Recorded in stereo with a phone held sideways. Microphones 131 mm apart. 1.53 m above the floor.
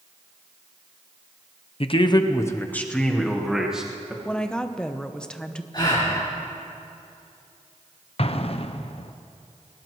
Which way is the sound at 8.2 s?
50° left (ahead or behind).